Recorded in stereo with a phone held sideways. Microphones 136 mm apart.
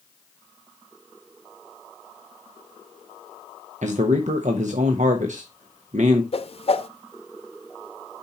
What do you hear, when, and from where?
3.8 s a man speaking: 70° right (ahead or behind), 1.0 m
6.3 s a whoosh: 50° left (ahead or behind), 0.7 m